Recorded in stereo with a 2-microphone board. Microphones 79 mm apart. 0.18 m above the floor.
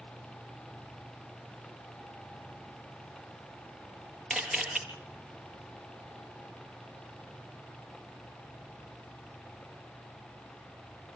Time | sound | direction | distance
4.3 | a camera shutter | centre (ahead or behind) | 3.5 m